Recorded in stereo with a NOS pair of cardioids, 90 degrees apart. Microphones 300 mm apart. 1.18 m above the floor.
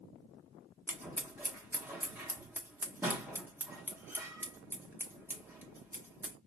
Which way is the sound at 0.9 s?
5° right.